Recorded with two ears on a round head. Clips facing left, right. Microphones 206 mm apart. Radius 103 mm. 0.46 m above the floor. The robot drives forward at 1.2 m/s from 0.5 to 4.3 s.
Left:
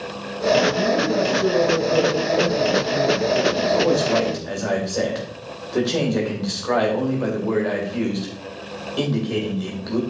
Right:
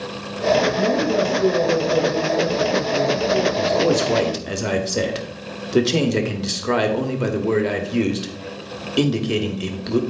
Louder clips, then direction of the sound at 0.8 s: Right 1 dB; 20° left (ahead or behind).